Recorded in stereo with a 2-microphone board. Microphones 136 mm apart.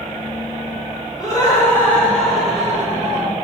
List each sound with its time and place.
1.2 s laughter: 25° left (ahead or behind), 1.3 m; by 3.3 s 20° right (ahead or behind), 1.2 m